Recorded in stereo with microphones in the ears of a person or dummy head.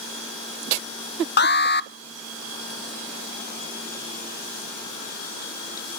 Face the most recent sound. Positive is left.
turn(degrees=50)  # may be behind; listen again after turning